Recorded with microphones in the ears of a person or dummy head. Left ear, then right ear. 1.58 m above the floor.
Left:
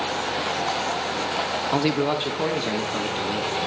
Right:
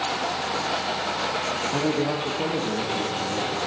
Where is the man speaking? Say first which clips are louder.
Left 5 dB; 70° left (ahead or behind), 1.0 m; by 3.5 s 50° left (ahead or behind), 2.5 m.